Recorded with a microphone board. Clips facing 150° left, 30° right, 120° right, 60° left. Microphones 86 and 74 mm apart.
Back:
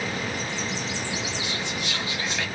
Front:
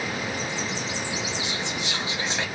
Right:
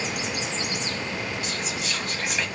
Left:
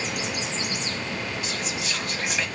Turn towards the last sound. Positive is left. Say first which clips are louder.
# even, even
turn(degrees=-35)